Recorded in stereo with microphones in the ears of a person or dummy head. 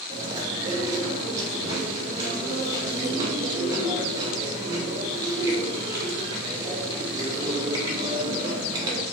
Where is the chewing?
25° right (ahead or behind), 1.9 m.